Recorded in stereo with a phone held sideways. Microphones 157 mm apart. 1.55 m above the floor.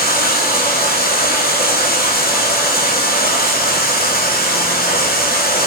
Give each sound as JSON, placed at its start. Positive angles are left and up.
{"t": 0.0, "sound": "running water", "side_deg": 75, "distance_m": 1.3}